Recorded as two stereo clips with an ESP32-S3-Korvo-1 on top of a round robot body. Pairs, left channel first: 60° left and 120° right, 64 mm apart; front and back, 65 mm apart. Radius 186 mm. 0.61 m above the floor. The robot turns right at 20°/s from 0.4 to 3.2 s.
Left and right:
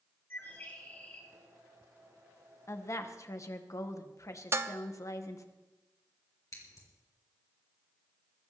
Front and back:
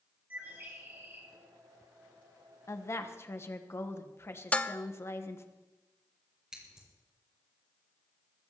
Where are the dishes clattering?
70° right, 0.7 m.